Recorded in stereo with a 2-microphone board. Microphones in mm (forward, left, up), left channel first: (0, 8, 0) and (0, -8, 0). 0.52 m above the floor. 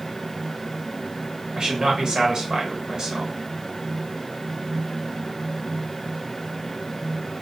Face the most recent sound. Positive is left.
turn(degrees=-55)  # may be behind; listen again after turning